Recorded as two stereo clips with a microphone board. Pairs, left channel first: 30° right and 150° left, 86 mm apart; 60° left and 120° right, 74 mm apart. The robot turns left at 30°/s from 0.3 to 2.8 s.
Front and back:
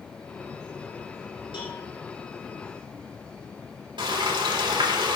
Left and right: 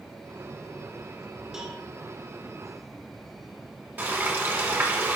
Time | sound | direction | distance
1.5 | a cowbell | 35° right | 3.5 m
4.0 | frying | straight behind | 3 m